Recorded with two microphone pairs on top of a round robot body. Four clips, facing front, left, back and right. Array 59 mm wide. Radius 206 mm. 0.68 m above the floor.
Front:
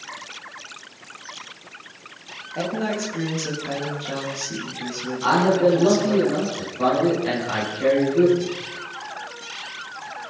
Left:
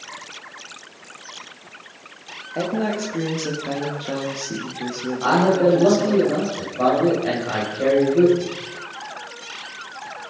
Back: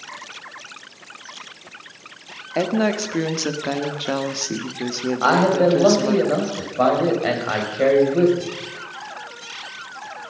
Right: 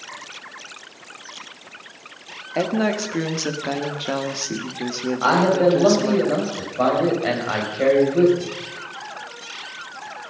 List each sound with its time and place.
2.5 s a woman speaking: 140° right, 2 m
5.2 s a man speaking: 160° right, 6 m